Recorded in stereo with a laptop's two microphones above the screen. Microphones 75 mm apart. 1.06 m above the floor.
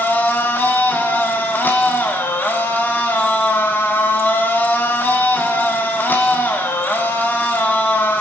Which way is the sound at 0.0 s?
25° left (ahead or behind).